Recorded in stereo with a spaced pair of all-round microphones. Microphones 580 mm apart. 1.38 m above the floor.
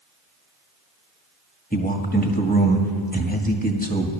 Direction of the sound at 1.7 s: 15° left (ahead or behind).